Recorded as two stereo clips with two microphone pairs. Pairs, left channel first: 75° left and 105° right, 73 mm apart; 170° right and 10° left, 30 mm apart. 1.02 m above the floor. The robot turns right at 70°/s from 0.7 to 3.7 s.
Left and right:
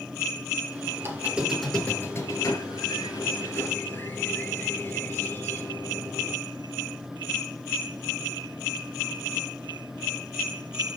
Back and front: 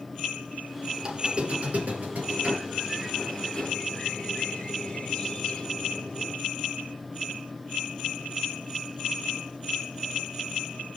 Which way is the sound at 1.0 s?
55° right.